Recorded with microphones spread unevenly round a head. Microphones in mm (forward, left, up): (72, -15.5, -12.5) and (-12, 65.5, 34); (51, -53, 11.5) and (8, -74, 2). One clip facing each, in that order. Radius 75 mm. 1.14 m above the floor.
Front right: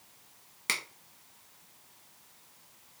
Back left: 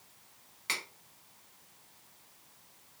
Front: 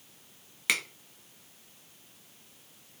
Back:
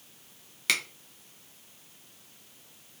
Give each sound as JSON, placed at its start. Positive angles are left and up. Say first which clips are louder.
{"t": 0.7, "sound": "a finger snap", "louder": "front right 2 dB, even", "azimuth_deg": -55, "distance_m": 1.3}